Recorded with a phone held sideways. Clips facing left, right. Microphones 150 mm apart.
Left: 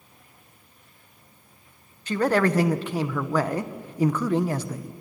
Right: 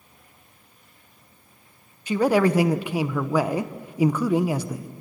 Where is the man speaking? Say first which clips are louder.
Right 2 dB; 10° right (ahead or behind), 0.9 m.